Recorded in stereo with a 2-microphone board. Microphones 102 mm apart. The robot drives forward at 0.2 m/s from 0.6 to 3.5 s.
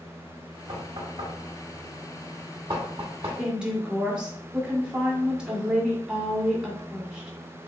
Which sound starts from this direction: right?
Knocking, at 0.7 s.